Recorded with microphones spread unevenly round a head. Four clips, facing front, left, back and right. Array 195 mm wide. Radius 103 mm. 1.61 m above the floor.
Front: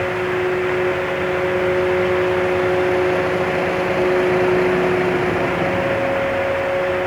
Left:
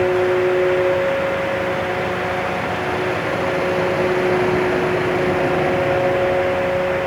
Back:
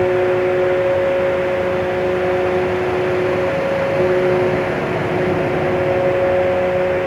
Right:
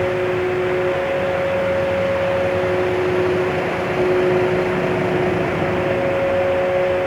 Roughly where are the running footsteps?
No running footsteps in this recording.